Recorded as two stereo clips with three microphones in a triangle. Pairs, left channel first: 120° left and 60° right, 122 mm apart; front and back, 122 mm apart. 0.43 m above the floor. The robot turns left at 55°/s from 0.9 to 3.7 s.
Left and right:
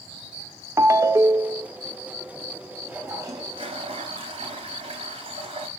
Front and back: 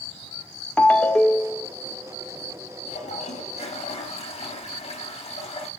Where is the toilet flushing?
25° left, 3 m; by 5.7 s 25° right, 3 m.